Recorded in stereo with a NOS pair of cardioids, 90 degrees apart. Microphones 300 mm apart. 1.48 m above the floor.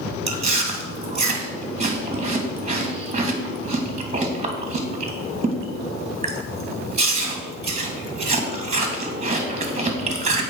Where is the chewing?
20° right, 2.5 m.